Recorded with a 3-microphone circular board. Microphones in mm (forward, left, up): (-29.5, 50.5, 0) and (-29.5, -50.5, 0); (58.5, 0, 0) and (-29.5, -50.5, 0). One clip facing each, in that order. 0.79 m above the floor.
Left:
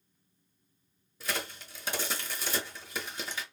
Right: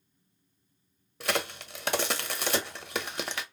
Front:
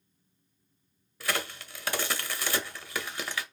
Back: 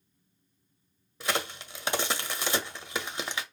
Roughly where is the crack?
Right.